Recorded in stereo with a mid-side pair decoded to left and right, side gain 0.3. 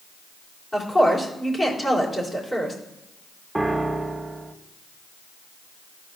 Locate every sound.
0.7 s a woman speaking: 25° left, 3.5 m
3.5 s a piano: 15° right, 0.7 m